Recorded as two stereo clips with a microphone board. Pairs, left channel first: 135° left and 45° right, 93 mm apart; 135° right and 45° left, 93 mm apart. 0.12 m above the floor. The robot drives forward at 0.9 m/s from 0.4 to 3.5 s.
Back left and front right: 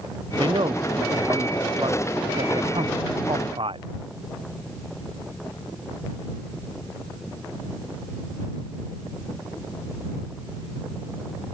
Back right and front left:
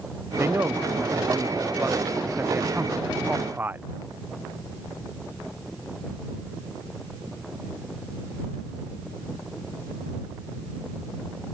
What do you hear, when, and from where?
0.4 s a man speaking: 20° right; by 3.9 s 25° right